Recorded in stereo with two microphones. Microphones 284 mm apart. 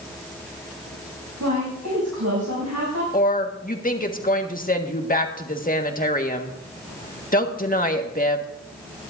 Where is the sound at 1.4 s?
85° right, 7.5 m.